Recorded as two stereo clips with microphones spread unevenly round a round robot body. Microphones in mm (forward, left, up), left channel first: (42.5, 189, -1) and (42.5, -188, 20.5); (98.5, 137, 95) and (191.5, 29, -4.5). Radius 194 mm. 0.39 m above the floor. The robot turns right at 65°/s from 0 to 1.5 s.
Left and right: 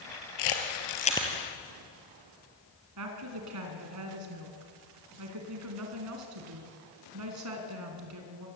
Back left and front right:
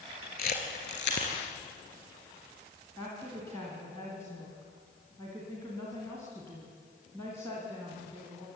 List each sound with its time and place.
0.4 s a camera shutter: 120° left, 2.5 m; by 1.3 s straight behind, 2.5 m
3.0 s a woman speaking: 140° right, 3.5 m